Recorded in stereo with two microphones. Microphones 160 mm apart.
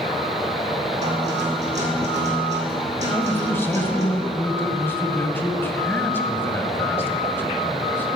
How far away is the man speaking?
About 1.1 m.